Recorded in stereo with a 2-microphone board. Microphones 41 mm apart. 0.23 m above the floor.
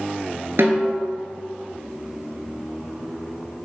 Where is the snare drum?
70° right (ahead or behind), 0.9 m.